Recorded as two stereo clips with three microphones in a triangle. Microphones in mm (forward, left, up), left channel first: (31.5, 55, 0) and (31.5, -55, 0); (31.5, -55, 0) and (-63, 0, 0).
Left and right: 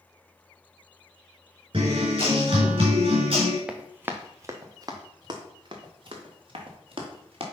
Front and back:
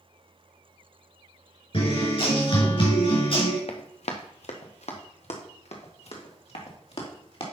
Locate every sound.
1.7 s a guitar: 60° right, 4 m
3.7 s running footsteps: 10° right, 1.1 m; by 7.4 s 55° right, 3 m